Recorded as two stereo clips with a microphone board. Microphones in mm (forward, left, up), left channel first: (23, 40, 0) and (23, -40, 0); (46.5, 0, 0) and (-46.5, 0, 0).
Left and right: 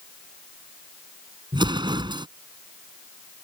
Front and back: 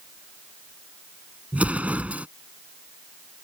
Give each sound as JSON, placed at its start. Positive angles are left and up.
{"t": 1.5, "sound": "an explosion", "azimuth_deg": -105}